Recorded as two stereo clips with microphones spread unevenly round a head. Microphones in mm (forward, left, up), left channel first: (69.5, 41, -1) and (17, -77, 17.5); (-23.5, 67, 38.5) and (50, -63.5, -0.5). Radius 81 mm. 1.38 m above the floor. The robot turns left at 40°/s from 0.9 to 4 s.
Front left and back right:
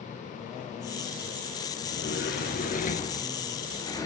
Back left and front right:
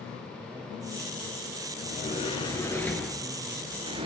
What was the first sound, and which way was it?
A sliding door, 85° left.